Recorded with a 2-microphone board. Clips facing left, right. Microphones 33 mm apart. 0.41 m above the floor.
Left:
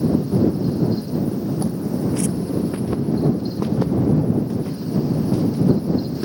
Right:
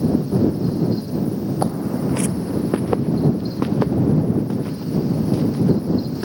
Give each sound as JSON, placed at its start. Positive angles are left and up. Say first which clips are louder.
{"t": 1.6, "sound": "footsteps", "louder": "right 1 dB", "side_deg": -45}